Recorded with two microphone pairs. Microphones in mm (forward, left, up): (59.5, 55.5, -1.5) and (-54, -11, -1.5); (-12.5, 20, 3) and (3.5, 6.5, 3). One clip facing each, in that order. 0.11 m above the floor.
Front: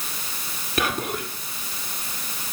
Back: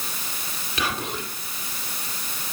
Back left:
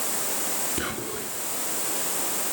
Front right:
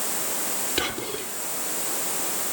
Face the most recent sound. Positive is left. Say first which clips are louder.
# front 3 dB, front right 3 dB
turn(degrees=5)